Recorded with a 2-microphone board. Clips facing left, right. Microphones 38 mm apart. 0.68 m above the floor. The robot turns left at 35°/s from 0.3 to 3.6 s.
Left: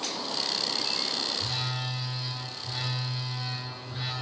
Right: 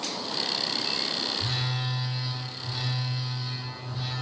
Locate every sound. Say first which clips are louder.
1.4 s a phone buzzing: right 2 dB; 150° right, 2.5 m; by 4.1 s 135° left, 2.5 m